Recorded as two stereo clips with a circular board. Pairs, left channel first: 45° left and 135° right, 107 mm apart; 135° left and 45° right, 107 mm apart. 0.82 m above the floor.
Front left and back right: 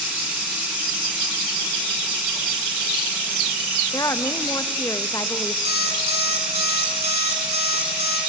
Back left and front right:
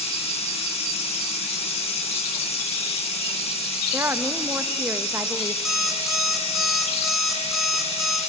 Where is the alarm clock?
135° right, 3 m.